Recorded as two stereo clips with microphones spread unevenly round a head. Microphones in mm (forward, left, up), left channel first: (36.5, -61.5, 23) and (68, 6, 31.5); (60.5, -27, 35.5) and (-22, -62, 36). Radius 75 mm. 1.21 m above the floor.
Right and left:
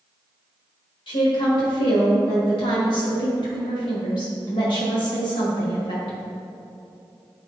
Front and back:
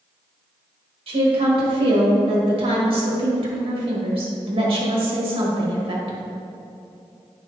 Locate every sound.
1.1 s a woman speaking: 135° right, 1.8 m